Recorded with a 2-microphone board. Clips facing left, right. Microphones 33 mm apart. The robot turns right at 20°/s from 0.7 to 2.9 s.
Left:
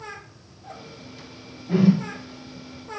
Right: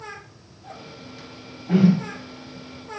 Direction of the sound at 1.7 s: 50° right (ahead or behind).